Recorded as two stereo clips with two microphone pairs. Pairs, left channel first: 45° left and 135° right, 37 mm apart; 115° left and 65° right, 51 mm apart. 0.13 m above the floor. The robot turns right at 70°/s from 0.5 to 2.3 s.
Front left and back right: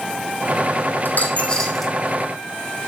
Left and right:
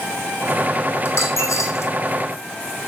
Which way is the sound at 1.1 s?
85° left.